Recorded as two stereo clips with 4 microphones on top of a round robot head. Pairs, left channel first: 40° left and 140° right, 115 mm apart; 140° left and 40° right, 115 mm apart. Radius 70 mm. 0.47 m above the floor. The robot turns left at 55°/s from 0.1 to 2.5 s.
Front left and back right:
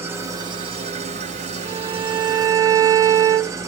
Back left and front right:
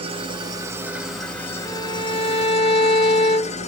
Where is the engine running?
70° right, 1.1 m; by 3.7 s 155° left, 1.1 m.